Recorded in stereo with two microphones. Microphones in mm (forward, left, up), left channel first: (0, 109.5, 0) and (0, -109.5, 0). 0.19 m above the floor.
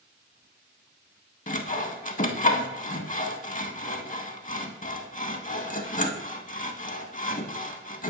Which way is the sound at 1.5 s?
35° left (ahead or behind).